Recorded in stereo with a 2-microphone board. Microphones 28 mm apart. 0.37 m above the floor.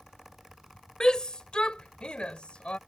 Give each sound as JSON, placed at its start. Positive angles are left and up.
{"t": 1.0, "sound": "a shout", "side_deg": 25}